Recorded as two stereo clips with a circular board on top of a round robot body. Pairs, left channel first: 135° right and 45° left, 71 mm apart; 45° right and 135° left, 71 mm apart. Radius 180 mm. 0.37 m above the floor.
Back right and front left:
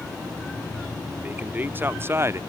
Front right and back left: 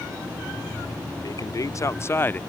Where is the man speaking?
20° right; by 2.4 s 15° left.